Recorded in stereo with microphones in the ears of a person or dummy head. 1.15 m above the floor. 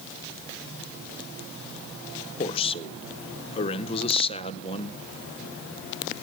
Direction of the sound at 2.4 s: 30° left (ahead or behind).